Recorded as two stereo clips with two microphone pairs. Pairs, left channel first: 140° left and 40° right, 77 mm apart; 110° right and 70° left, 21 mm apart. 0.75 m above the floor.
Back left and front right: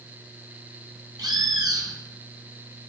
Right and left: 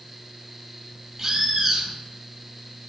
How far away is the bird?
About 2.5 m.